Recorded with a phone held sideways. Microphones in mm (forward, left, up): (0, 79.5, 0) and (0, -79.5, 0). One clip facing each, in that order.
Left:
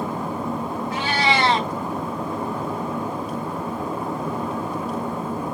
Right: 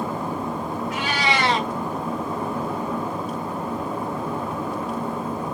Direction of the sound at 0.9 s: 35° left (ahead or behind).